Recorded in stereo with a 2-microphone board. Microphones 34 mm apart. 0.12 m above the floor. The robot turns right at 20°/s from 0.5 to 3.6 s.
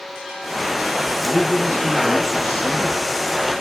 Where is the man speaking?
110° left, 5.5 m; by 3.1 s 150° left, 5.5 m.